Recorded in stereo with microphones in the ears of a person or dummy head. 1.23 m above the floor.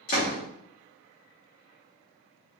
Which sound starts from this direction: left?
A door slam, at 0.1 s.